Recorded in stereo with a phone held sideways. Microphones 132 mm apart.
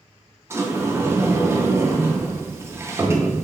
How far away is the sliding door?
About 0.6 m.